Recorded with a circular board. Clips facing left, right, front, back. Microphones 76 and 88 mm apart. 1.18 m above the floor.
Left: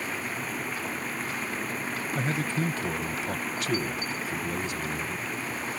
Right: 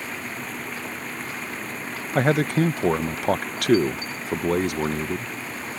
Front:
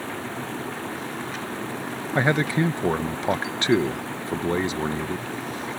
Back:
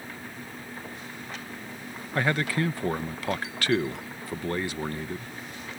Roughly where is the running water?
Ahead.